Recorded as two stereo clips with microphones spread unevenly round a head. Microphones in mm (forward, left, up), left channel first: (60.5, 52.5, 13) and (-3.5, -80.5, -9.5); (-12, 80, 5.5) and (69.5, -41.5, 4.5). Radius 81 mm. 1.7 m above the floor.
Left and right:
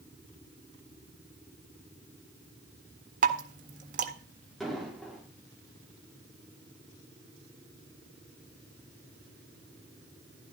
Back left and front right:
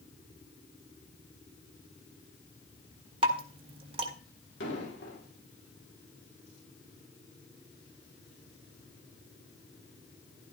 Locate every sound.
3.2 s dripping: 100° right, 1.7 m
4.6 s an explosion: 155° left, 5.5 m